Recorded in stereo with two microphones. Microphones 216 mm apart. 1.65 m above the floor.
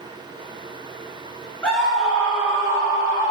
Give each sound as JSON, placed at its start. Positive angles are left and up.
{"t": 1.6, "sound": "a scream", "side_deg": 5, "distance_m": 2.0}